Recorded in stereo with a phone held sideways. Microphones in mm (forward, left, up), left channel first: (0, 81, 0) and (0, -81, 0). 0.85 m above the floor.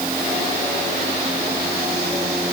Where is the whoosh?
I don't hear a whoosh.